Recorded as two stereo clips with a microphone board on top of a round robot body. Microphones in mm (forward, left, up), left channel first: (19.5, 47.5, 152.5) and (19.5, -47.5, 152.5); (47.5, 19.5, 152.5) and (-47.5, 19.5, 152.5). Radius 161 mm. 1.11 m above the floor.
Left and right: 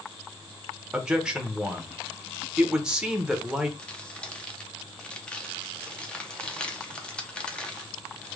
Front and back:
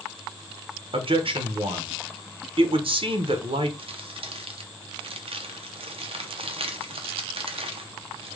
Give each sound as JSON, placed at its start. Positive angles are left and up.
{"t": 0.9, "sound": "a man speaking", "azimuth_deg": -170, "distance_m": 1.0}
{"t": 3.8, "sound": "crumpling", "azimuth_deg": 170, "distance_m": 0.9}